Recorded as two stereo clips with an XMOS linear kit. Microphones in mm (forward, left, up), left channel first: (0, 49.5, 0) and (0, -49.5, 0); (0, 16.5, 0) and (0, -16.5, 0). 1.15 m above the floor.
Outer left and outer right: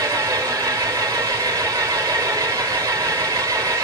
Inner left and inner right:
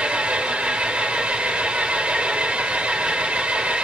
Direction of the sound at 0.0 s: 35° right (ahead or behind).